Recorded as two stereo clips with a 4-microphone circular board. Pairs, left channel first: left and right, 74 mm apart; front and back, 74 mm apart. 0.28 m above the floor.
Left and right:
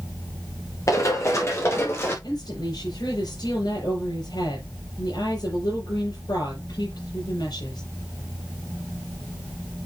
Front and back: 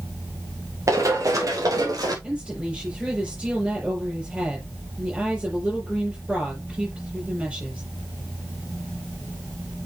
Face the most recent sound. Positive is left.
turn(degrees=100)